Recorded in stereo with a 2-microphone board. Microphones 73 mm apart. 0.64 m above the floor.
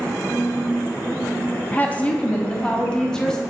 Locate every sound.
1.7 s a woman speaking: 20° left (ahead or behind), 0.7 m; by 3.4 s 10° left (ahead or behind), 1.1 m